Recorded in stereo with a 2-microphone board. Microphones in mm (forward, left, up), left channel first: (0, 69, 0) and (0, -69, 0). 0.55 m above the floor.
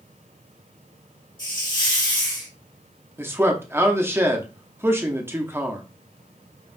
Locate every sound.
1.4 s a hiss: 35° left (ahead or behind), 1.3 m
3.2 s a man speaking: 15° right (ahead or behind), 0.7 m